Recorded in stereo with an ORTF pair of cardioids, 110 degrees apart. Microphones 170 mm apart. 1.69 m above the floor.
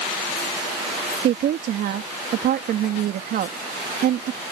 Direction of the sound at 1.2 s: 60° right.